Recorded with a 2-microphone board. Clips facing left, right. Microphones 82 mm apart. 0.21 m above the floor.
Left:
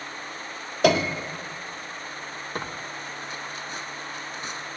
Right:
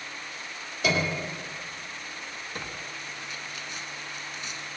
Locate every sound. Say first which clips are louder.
0.8 s a piano: left 6 dB; 70° left (ahead or behind), 1.7 m
2.5 s tearing paper: left 6 dB; 45° left (ahead or behind), 0.7 m